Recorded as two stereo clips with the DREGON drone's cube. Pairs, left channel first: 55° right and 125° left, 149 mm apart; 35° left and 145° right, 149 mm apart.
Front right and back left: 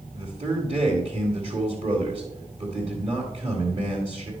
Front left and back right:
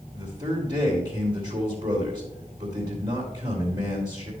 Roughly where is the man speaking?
Behind left.